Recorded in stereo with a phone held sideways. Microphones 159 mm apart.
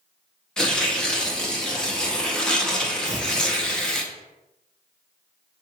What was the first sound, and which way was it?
Tearing paper, 5° left (ahead or behind).